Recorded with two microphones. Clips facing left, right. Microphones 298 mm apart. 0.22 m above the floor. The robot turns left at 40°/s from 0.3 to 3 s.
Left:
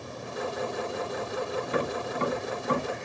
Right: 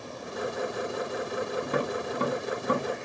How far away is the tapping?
About 1.3 m.